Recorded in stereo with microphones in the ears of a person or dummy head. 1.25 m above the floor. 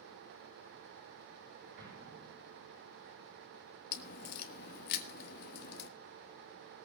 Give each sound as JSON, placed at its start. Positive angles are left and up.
{"t": 1.8, "sound": "an explosion", "side_deg": -55, "distance_m": 6.0}
{"t": 3.9, "sound": "a crack", "side_deg": 55, "distance_m": 1.6}